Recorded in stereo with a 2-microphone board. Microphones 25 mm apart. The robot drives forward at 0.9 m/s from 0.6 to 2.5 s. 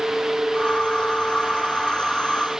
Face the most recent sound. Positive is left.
No sound to turn to.